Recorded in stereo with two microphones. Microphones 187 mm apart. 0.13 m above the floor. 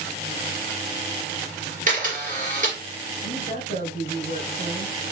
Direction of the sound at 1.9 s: 45° right (ahead or behind).